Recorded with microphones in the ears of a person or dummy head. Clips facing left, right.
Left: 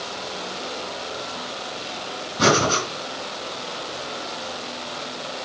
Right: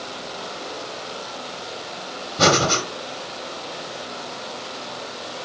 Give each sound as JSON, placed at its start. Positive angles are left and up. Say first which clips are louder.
{"t": 2.4, "sound": "breathing", "louder": "even", "side_deg": -70, "distance_m": 2.5}